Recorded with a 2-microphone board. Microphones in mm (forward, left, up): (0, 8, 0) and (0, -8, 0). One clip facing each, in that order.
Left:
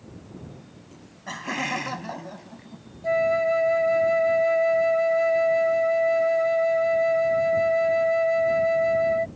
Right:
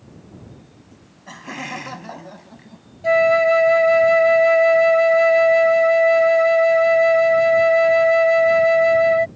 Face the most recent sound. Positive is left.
turn(degrees=-45)  # may be behind; listen again after turning